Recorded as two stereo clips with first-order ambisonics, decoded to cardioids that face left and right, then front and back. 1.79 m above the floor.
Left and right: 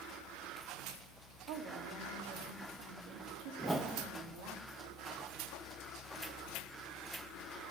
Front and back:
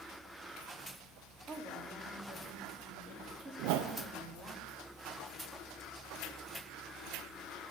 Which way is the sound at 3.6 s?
175° right.